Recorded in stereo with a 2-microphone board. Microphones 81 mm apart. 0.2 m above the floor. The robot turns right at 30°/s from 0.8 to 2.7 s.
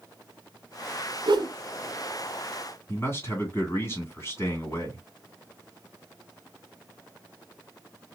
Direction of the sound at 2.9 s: 35° left (ahead or behind).